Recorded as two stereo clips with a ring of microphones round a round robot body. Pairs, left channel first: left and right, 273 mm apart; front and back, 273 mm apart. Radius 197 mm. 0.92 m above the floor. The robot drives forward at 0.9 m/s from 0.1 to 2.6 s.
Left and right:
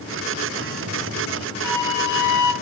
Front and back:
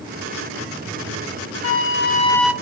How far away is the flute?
About 1.0 m.